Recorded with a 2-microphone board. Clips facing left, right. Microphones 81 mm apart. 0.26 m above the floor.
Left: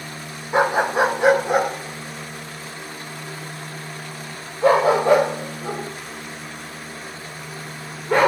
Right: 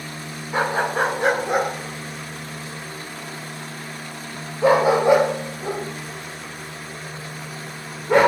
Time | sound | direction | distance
0.5 | a dog barking | 20° left (ahead or behind) | 0.7 m